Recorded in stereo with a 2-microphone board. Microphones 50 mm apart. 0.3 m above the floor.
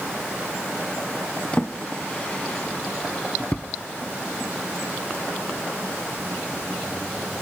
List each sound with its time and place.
1.5 s a drawer: 25° left (ahead or behind), 0.7 m